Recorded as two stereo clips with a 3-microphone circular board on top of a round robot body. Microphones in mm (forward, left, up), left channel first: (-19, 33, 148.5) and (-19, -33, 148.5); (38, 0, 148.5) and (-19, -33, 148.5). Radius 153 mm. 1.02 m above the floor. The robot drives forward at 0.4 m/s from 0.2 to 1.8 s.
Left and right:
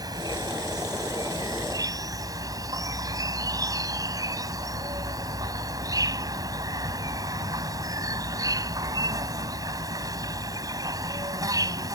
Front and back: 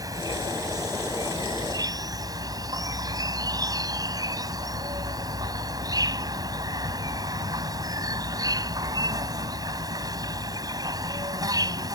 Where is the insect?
115° right; by 12.0 s 120° right.